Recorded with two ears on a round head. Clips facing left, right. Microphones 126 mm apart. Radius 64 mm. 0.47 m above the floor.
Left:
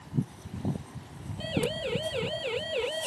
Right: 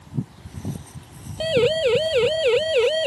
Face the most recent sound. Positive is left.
turn(degrees=-80)